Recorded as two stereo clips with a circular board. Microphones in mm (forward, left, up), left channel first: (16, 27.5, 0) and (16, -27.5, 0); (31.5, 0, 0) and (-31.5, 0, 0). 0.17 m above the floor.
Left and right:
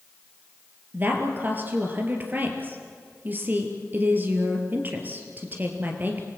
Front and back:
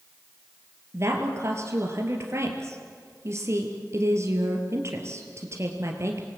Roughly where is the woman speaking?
Behind right.